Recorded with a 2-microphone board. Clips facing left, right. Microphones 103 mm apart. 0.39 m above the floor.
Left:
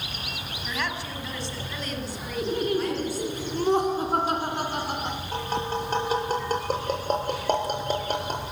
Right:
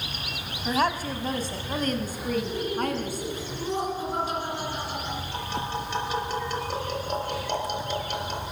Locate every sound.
0.7 s a woman speaking: 40° right (ahead or behind), 3 m; by 3.4 s 55° right (ahead or behind), 4.5 m
2.4 s laughter: 60° left (ahead or behind), 4.5 m
5.3 s tapping: 45° left (ahead or behind), 5 m